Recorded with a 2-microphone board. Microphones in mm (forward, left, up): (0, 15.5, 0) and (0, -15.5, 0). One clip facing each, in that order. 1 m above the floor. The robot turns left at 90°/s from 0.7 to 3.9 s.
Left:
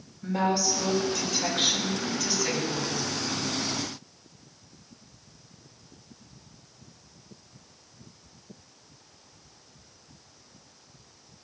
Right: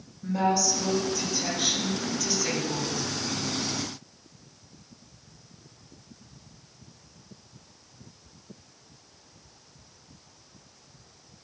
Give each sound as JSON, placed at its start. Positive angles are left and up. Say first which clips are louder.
{"t": 0.2, "sound": "a woman speaking", "louder": "right 1 dB", "azimuth_deg": 145, "distance_m": 5.5}